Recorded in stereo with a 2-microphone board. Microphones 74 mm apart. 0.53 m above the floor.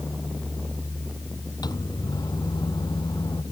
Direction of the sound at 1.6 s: 70° left (ahead or behind).